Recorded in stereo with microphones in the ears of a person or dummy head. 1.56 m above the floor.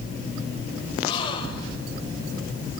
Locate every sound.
1.0 s a gasp: 30° left (ahead or behind), 4 m